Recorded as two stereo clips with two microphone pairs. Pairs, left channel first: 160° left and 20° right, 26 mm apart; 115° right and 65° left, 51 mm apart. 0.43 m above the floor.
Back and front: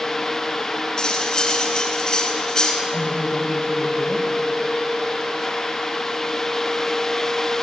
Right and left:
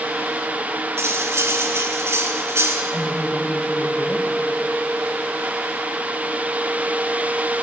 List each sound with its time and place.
1.0 s cutlery clinking: 95° left, 2.5 m
2.9 s a woman speaking: 175° left, 1.8 m